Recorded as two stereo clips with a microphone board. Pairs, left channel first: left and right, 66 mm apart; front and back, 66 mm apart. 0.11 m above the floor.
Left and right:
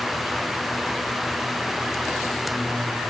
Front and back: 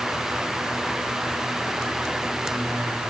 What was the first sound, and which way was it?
Only background noise.